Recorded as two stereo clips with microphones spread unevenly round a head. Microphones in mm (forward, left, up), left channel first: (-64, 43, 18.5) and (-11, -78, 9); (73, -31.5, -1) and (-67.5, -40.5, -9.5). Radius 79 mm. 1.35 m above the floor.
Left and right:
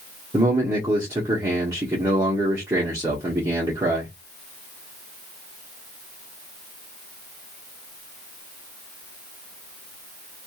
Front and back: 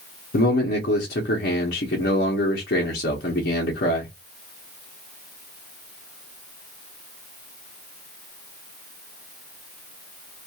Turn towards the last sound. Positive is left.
turn(degrees=0)